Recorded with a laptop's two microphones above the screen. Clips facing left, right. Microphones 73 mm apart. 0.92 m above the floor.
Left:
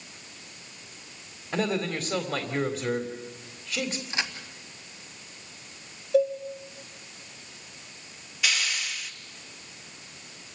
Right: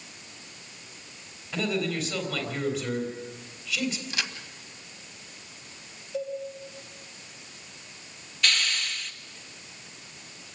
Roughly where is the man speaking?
Left.